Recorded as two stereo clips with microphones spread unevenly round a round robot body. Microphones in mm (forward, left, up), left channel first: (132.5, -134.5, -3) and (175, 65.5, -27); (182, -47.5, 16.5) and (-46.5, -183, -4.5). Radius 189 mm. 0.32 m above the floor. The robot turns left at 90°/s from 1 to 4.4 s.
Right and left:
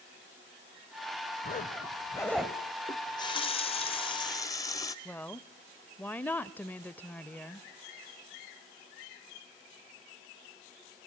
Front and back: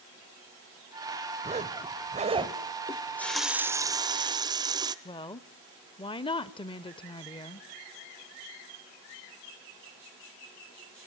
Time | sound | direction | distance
1.4 | a zipper | 115° right | 1.5 m
2.9 | a running tap | 30° right | 0.6 m
5.0 | a woman speaking | 20° right | 0.9 m